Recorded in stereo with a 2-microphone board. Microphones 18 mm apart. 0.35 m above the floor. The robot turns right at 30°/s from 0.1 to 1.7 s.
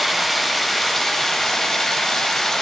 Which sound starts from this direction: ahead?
Running water, at 0.0 s.